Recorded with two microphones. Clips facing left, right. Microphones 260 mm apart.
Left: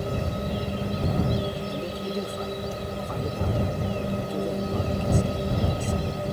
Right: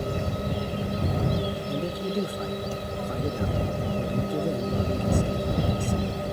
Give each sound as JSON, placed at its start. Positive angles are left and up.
{"t": 1.7, "sound": "a man speaking", "side_deg": -15}